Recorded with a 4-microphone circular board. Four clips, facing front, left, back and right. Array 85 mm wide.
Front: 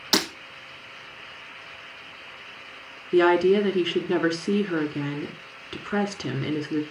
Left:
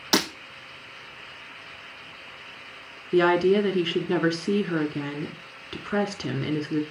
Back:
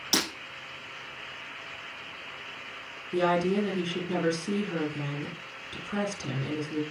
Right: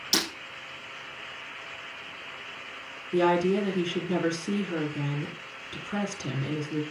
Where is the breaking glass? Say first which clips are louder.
Left 7 dB, front 5 dB; 65° left, 3.5 m.